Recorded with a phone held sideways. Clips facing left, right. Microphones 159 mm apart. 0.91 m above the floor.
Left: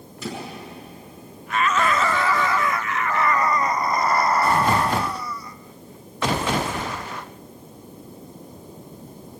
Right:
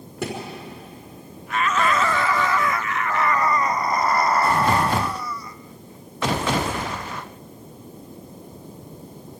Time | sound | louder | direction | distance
0.2 | a thud | right 3 dB | 70° right (ahead or behind) | 5 m